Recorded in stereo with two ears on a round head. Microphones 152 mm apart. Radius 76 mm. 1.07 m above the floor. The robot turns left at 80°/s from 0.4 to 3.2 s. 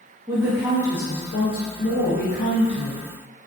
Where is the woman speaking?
165° right, 0.8 m; by 3.1 s 20° right, 0.8 m.